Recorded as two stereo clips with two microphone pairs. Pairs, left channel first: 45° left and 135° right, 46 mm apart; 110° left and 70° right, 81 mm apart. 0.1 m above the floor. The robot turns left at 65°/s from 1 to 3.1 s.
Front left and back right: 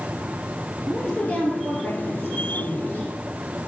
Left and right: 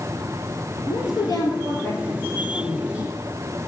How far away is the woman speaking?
About 2 m.